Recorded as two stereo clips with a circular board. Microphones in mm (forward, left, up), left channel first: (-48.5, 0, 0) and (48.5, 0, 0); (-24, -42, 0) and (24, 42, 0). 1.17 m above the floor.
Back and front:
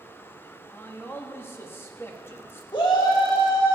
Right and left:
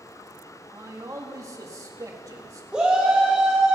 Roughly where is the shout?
Behind left.